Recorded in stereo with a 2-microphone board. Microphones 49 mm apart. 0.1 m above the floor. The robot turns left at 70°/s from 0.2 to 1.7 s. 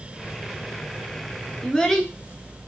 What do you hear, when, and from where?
1.6 s a child speaking: 10° left (ahead or behind), 0.7 m